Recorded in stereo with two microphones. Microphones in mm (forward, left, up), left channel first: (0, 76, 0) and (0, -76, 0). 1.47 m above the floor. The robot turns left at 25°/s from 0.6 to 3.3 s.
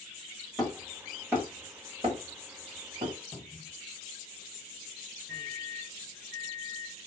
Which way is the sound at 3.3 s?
15° left (ahead or behind).